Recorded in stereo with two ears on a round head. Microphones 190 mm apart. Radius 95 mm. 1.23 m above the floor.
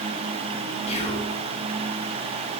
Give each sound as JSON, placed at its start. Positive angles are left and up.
{"t": 0.9, "sound": "whispering", "side_deg": 30, "distance_m": 2.0}